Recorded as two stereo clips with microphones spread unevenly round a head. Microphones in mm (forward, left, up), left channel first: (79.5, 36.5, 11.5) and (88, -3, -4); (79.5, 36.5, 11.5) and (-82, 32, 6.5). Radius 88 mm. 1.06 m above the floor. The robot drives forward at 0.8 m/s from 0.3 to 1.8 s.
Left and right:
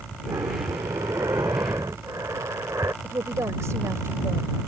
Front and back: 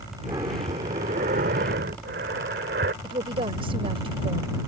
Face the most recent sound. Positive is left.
turn(degrees=-115)